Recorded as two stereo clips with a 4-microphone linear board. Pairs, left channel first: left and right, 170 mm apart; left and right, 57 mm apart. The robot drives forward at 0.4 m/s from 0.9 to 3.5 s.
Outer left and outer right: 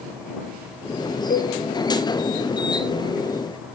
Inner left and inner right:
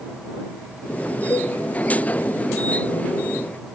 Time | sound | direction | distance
1.3 | a cowbell | 65° left (ahead or behind) | 1.4 m